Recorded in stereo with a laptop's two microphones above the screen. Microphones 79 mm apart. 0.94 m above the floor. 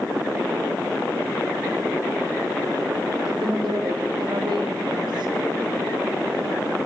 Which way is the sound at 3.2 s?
75° right (ahead or behind).